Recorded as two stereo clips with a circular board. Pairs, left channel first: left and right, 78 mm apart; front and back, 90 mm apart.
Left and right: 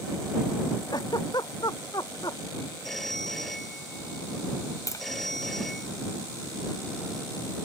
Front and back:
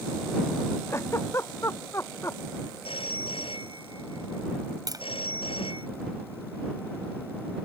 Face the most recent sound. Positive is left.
turn(degrees=135)